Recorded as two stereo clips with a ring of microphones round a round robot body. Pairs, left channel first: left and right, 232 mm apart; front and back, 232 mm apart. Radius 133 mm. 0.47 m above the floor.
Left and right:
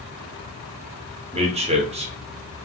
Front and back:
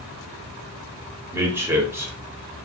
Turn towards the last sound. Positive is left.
turn(degrees=-110)